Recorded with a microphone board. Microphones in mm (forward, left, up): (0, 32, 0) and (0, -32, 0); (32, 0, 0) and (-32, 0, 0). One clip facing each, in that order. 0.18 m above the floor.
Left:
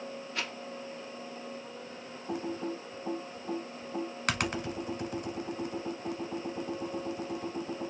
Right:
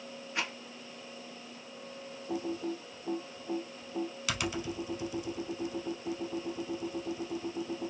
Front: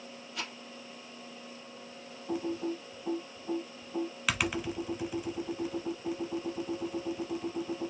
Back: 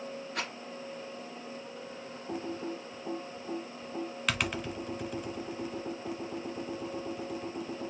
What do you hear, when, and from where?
0.3 s a rattle: 160° right, 1.1 m
2.3 s typing on a keyboard: 85° left, 0.7 m